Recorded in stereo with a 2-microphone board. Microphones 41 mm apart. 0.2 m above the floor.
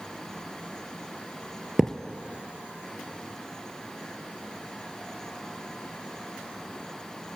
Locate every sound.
1.8 s a thud: 10° right (ahead or behind), 0.6 m